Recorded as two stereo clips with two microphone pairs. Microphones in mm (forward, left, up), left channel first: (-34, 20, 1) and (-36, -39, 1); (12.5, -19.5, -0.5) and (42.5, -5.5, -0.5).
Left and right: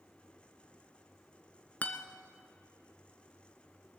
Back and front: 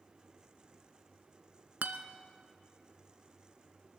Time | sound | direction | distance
1.8 | a guitar | 30° left | 0.7 m